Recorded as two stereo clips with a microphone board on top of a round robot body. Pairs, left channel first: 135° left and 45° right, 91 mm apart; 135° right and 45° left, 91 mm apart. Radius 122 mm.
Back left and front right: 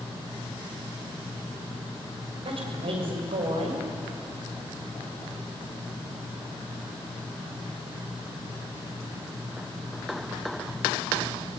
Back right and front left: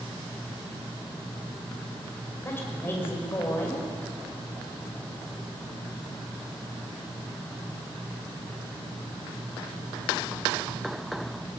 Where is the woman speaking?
70° right, 6.5 m.